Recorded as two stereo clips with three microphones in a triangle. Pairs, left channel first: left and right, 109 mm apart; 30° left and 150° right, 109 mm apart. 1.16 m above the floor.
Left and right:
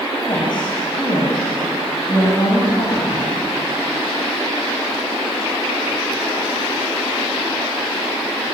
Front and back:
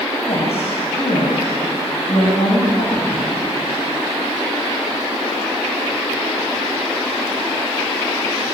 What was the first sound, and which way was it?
A woman speaking, 45° left.